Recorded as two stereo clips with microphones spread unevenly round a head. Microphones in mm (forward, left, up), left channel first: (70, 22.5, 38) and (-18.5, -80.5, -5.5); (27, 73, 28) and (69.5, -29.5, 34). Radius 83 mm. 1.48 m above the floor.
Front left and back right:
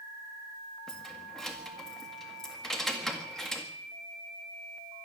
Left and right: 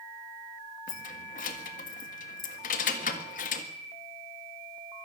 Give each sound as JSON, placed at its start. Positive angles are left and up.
{"t": 0.9, "sound": "keys jangling", "azimuth_deg": 130, "distance_m": 1.7}